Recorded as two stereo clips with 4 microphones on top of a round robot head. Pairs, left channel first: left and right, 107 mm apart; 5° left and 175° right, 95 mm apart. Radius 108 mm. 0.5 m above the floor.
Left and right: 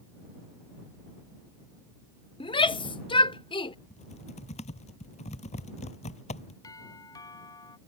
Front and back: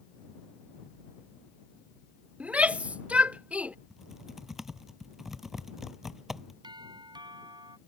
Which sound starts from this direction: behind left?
A doorbell, at 6.6 s.